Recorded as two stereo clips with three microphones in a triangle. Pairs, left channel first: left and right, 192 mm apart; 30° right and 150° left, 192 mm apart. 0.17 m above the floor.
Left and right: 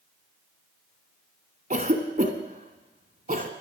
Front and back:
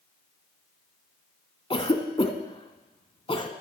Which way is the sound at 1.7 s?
80° right.